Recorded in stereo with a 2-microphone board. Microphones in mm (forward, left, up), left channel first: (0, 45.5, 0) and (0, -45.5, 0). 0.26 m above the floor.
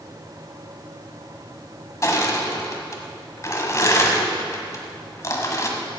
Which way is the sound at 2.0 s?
35° left (ahead or behind).